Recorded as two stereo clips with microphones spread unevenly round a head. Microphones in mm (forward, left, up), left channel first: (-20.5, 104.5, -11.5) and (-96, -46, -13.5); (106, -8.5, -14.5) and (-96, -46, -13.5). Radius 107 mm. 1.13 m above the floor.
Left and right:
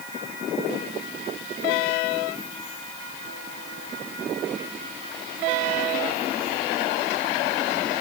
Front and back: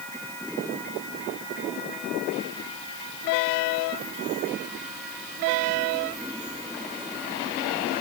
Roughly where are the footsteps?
I don't hear footsteps.